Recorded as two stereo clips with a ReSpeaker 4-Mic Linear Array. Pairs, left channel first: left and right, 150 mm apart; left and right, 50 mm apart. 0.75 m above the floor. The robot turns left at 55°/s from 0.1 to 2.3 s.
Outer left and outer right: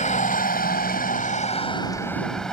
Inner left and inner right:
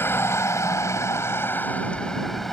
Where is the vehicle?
125° left; by 2.5 s 5° left.